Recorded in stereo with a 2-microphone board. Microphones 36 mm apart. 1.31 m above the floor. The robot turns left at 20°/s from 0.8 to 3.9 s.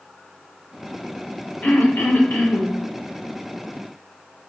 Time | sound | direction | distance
1.6 | throat clearing | 65° left (ahead or behind) | 0.6 m